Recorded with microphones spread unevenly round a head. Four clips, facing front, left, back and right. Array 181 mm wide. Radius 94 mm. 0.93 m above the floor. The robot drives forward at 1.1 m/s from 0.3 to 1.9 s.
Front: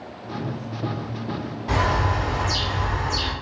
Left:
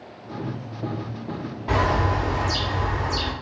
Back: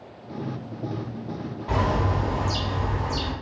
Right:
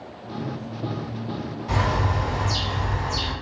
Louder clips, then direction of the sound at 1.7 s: Left 3 dB, front 2 dB; 60° left.